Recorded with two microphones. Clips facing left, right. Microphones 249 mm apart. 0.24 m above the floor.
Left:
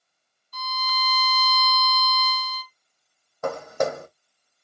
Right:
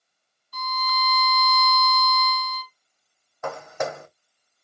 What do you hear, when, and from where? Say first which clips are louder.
0.5 s a violin: right 3 dB; 60° right (ahead or behind), 0.6 m
3.4 s footsteps: left 4 dB; 40° left (ahead or behind), 0.6 m